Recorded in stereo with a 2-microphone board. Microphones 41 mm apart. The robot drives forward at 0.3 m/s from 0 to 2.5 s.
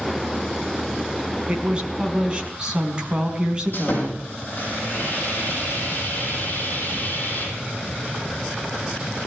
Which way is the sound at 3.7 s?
45° left (ahead or behind).